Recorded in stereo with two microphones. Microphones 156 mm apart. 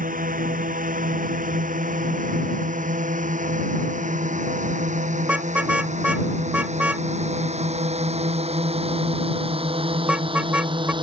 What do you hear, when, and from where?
0.0 s a drone: 60° right (ahead or behind); by 11.0 s 30° right (ahead or behind)
5.2 s a car horn: 5° right (ahead or behind)